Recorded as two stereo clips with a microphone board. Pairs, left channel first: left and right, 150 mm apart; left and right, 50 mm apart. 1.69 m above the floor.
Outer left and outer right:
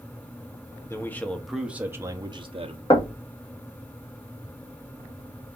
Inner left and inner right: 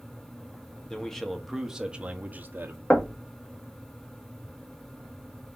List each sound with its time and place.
0.9 s a man speaking: 20° left (ahead or behind), 1.0 m; by 2.8 s 45° right (ahead or behind), 1.0 m
2.9 s knocking: 35° left (ahead or behind), 1.0 m